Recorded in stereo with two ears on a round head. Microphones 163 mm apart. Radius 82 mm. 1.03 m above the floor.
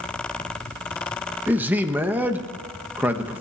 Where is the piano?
No piano in this recording.